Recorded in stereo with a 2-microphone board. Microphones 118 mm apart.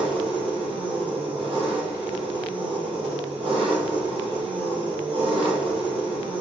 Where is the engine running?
50° right (ahead or behind), 3.5 m.